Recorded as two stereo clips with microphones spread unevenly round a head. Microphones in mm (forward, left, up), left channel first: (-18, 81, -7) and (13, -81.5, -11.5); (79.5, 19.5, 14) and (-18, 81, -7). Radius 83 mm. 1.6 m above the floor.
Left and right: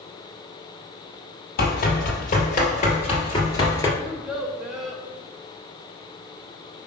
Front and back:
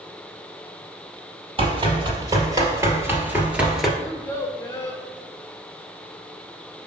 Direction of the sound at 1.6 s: 110° left.